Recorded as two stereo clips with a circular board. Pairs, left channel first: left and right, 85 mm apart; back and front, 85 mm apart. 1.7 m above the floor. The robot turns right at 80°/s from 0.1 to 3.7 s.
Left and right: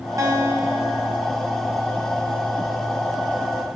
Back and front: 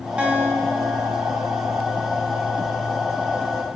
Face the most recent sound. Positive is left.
turn(degrees=-150)